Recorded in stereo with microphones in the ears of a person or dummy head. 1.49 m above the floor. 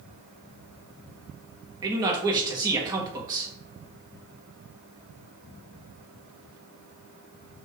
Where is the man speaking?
20° right (ahead or behind), 1.4 m.